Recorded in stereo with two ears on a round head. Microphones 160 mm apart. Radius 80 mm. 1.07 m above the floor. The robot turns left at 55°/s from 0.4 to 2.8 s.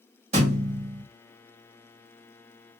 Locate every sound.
0.3 s a thud: 40° right, 1.6 m; by 1.1 s 75° right, 1.6 m